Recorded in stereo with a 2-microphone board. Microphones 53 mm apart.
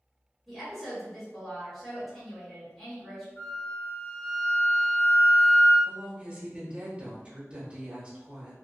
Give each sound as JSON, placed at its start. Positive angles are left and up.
{"t": 0.5, "sound": "a woman speaking", "side_deg": 5, "distance_m": 1.3}
{"t": 3.4, "sound": "a flute", "side_deg": 50, "distance_m": 2.0}
{"t": 5.8, "sound": "a woman speaking", "side_deg": -20, "distance_m": 1.2}